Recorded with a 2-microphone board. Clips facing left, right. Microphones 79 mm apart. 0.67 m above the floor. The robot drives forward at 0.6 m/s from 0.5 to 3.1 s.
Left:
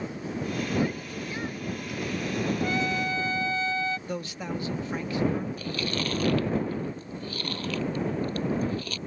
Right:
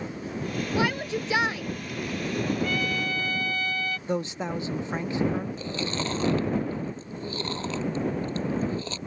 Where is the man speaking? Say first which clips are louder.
Right 4 dB; 25° right (ahead or behind).